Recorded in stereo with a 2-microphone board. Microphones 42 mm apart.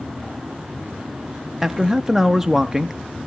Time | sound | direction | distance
1.6 | a man speaking | 5° right (ahead or behind) | 0.5 m